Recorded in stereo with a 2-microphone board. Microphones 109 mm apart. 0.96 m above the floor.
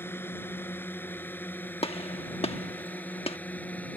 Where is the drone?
20° left (ahead or behind); by 4.0 s 15° left (ahead or behind).